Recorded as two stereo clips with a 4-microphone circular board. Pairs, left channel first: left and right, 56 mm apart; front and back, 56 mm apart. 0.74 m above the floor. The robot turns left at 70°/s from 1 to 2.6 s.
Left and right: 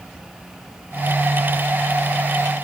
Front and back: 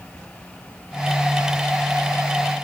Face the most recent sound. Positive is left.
No sound to turn to.